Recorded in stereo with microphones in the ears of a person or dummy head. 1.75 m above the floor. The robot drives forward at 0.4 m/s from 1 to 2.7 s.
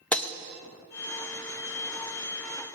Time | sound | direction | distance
0.1 | breaking glass | 10° left (ahead or behind) | 1.2 m